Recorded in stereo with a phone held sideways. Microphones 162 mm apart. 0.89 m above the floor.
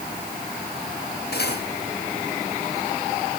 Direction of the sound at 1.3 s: 85° left.